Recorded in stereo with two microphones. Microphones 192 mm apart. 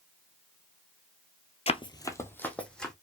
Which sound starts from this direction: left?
Running footsteps, at 1.7 s.